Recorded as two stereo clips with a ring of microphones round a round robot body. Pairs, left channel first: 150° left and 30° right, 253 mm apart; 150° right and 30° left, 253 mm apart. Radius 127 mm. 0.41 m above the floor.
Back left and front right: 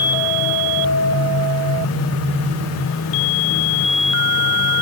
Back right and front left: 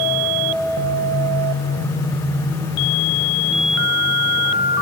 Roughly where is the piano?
No piano in this recording.